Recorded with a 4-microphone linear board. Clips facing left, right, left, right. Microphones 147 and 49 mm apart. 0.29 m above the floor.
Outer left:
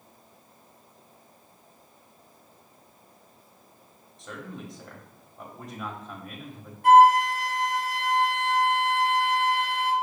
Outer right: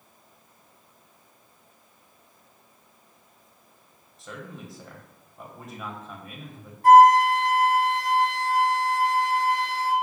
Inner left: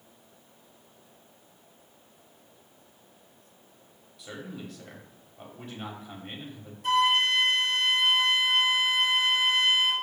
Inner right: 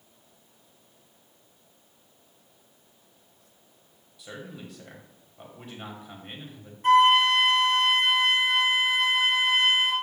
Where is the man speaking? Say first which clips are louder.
Outer left 1 dB, inner left 1 dB; centre (ahead or behind), 1.1 m.